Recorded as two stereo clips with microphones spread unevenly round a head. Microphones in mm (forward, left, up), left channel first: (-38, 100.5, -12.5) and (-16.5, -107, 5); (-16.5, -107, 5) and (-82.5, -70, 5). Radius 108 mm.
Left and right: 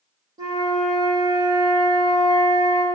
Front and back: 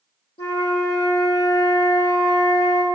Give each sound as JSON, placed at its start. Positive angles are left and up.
{"t": 0.4, "sound": "a flute", "azimuth_deg": -10, "distance_m": 1.4}